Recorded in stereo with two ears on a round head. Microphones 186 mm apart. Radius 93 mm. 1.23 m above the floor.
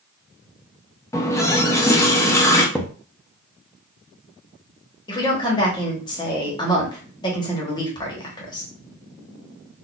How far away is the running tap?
About 0.5 m.